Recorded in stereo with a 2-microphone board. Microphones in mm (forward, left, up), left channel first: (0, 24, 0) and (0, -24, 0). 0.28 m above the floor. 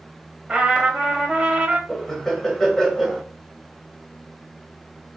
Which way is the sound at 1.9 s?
10° left (ahead or behind).